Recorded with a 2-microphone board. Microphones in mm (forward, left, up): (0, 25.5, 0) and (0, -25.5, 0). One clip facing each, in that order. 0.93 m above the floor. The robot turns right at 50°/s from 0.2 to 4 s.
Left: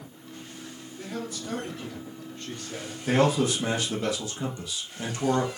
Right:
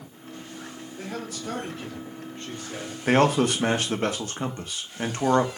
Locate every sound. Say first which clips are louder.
1.0 s a man speaking: even; 105° right, 2 m; by 3.0 s straight ahead, 2 m
3.1 s a man speaking: right 3 dB; 105° right, 0.8 m; by 5.6 s 60° right, 0.8 m